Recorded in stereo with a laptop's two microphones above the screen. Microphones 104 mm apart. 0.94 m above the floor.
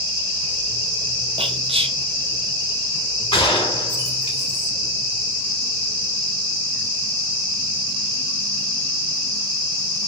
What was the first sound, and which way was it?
Whispering, 60° right (ahead or behind).